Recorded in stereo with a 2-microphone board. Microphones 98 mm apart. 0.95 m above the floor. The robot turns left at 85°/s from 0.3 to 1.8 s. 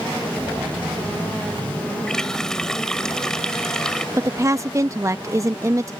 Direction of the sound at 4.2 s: 30° right (ahead or behind).